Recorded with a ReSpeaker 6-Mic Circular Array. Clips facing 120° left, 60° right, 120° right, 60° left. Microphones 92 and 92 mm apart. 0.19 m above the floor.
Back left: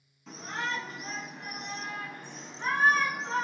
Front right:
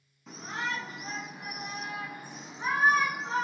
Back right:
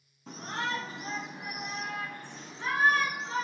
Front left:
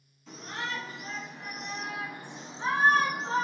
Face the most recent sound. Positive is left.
turn(degrees=25)